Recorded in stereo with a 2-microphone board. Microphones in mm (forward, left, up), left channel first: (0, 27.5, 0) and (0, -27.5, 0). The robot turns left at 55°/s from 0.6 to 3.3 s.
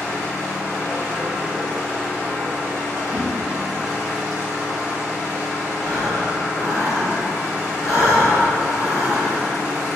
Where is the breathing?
80° left, 1.0 m.